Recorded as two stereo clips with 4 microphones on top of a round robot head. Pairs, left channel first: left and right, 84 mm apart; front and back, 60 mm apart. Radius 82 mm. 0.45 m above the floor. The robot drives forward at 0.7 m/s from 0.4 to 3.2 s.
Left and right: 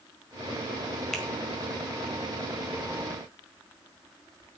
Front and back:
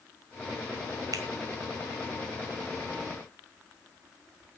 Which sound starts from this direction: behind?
A finger snap, at 1.1 s.